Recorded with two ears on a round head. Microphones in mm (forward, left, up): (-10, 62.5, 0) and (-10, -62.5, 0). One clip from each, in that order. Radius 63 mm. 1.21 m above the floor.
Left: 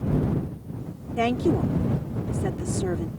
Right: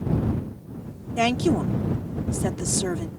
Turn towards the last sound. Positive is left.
turn(degrees=-85)